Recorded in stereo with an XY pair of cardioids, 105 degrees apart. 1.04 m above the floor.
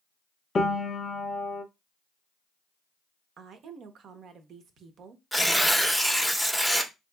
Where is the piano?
35° left, 0.6 m.